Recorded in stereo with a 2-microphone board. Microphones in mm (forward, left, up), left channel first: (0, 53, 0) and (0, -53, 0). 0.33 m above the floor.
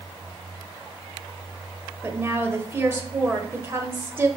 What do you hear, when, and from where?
2.0 s a woman speaking: 25° right (ahead or behind), 1.2 m